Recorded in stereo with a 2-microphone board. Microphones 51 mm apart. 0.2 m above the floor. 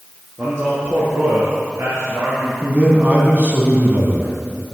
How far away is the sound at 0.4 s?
About 3 m.